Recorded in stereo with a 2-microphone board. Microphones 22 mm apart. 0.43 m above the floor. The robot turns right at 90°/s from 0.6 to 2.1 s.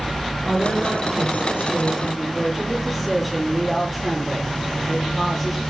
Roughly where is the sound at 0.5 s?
Behind right.